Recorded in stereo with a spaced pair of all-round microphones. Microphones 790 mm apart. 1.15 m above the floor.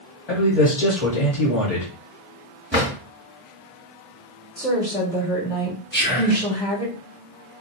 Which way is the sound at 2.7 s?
15° right (ahead or behind).